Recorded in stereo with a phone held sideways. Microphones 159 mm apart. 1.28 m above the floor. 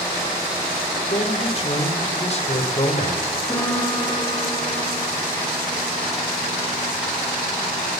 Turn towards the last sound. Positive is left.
turn(degrees=10)  # may be behind; listen again after turning